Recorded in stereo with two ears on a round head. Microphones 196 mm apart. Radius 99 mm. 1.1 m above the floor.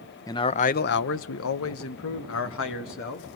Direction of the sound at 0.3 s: 15° left (ahead or behind).